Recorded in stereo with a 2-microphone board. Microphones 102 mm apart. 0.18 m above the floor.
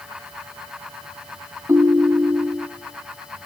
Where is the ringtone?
25° right (ahead or behind), 1.1 m.